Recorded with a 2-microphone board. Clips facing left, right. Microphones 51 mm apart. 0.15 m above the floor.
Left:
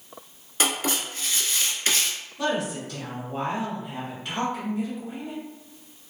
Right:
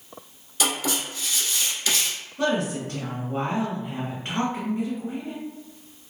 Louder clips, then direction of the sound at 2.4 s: Right 2 dB; 40° right (ahead or behind).